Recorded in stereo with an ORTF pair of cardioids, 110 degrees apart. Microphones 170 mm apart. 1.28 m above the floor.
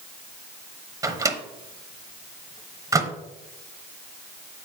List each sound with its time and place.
1.0 s a microwave: 20° right, 0.9 m